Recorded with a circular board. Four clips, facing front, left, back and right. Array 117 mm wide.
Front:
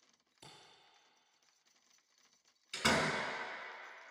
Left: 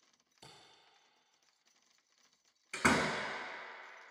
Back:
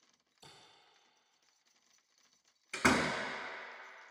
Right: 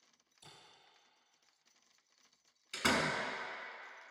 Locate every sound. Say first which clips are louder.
0.4 s a camera shutter: left 3 dB, front 1 dB; 50° left, 3 m
2.7 s a door slam: left 3 dB, back 3 dB; 140° left, 0.8 m